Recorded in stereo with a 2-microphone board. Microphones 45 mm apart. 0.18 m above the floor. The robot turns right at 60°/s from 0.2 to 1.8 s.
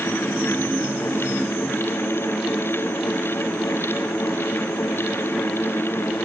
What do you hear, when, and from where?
Only background noise.